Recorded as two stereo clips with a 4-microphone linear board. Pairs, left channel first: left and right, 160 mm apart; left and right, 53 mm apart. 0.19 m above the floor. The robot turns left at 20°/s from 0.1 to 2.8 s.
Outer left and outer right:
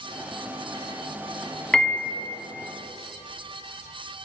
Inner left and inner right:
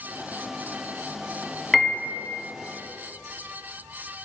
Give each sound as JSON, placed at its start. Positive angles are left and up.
{"t": 1.7, "sound": "a piano", "side_deg": 5, "distance_m": 1.0}